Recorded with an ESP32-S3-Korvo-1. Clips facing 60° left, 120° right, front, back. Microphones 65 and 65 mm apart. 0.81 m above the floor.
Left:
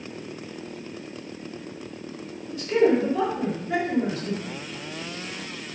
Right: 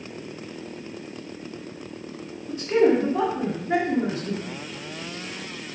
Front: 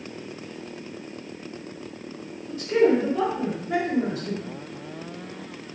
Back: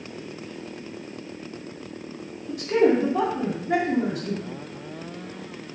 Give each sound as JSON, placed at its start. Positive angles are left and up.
{"t": 2.5, "sound": "a man speaking", "azimuth_deg": -175, "distance_m": 1.7}